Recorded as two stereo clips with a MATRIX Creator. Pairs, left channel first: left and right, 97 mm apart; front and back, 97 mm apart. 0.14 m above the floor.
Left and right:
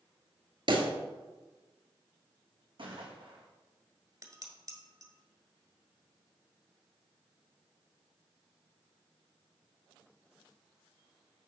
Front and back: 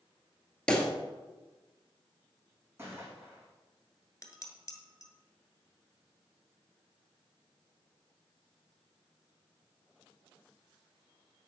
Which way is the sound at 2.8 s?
115° right.